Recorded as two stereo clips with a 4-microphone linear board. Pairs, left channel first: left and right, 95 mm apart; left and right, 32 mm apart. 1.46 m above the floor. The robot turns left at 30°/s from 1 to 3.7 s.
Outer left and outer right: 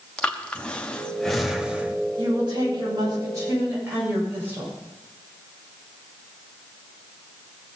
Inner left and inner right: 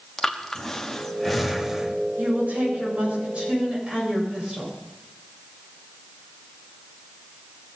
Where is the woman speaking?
110° right, 7 m; by 4.8 s 155° right, 7 m.